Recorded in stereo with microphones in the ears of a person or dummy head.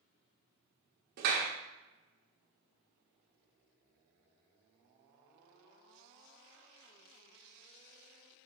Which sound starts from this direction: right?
A clap, at 1.2 s.